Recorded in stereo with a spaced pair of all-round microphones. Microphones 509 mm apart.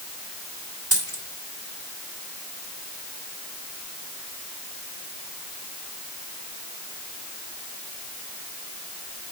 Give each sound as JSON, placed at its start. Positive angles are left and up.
{"t": 0.9, "sound": "a dropped coin", "side_deg": -60, "distance_m": 3.0}